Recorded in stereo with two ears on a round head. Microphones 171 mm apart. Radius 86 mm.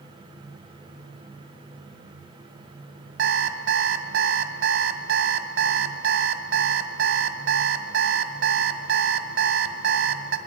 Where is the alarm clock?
60° right (ahead or behind), 2.0 m.